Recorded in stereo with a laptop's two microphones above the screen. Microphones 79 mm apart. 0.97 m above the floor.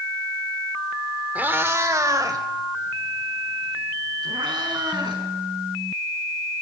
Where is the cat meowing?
20° right (ahead or behind), 1.2 m; by 5.2 s 70° right (ahead or behind), 5.5 m.